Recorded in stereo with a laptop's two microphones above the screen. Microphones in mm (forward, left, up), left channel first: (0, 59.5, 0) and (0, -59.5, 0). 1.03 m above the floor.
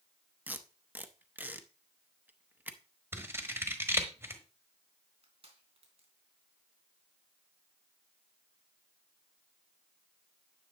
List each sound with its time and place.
0.5 s tape being pulled: 15° right (ahead or behind), 0.6 m
3.1 s scissors: 20° right (ahead or behind), 1.2 m
5.2 s crushing: 55° right (ahead or behind), 3.5 m